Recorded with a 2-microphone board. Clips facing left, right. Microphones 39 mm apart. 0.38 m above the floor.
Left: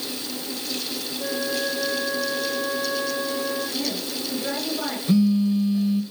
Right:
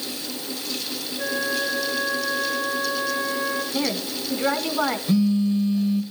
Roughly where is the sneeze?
No sneeze in this recording.